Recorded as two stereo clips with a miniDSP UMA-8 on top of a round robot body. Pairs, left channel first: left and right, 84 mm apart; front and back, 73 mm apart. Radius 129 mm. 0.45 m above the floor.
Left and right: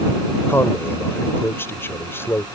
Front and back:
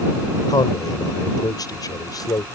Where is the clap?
I don't hear a clap.